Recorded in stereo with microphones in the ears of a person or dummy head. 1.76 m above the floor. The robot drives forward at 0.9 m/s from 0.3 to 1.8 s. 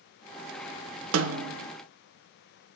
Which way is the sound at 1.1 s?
85° right.